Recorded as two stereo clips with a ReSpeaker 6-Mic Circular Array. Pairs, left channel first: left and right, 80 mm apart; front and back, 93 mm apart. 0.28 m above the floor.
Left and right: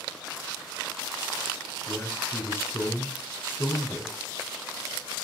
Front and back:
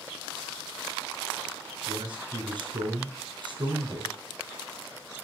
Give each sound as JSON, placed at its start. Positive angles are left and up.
{"t": 1.9, "sound": "a man speaking", "azimuth_deg": 150, "distance_m": 3.5}